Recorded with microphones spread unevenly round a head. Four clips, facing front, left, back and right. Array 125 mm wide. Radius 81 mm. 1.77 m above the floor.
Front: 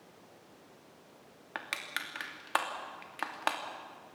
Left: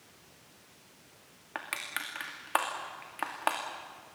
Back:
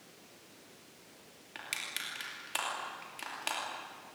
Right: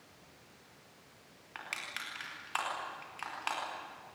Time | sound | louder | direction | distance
1.6 | crushing | left 5 dB, front 5 dB | 55° left | 2.5 m